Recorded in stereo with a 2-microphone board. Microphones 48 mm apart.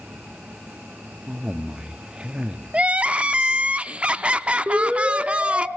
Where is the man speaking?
20° right (ahead or behind), 0.6 m.